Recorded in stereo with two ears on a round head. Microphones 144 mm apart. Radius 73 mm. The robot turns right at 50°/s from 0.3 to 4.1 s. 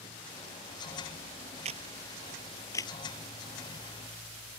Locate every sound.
1.6 s a camera shutter: 40° right (ahead or behind); by 2.9 s 25° left (ahead or behind)